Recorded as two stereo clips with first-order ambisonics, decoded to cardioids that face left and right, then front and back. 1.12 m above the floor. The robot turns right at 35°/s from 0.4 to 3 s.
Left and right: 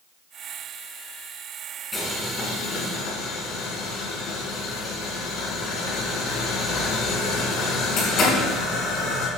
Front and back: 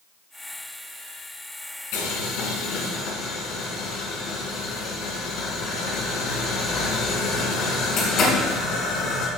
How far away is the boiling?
About 4 m.